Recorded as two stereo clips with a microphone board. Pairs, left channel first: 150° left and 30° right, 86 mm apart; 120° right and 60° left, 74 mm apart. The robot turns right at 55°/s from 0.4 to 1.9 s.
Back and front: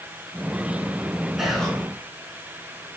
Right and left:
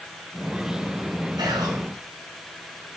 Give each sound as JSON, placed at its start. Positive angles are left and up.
{"t": 1.4, "sound": "whispering", "azimuth_deg": 55, "distance_m": 5.5}